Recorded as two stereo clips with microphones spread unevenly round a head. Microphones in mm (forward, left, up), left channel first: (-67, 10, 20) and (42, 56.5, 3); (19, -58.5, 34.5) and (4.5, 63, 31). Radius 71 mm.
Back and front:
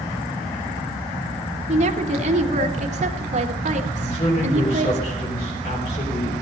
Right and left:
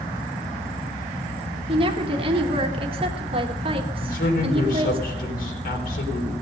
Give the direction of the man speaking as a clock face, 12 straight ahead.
3 o'clock.